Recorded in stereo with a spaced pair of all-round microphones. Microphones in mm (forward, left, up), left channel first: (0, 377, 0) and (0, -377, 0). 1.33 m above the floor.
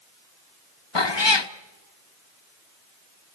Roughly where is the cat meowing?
Left.